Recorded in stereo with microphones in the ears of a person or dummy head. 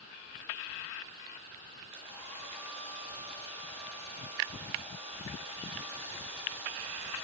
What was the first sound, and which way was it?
A hair dryer, 30° right (ahead or behind).